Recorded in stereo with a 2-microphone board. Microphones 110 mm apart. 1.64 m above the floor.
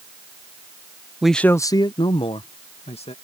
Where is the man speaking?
5° right (ahead or behind); by 3.1 s 70° left (ahead or behind).